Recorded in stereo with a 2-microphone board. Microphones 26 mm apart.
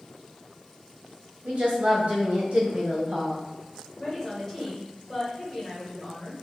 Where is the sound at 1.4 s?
60° right (ahead or behind), 1.8 m.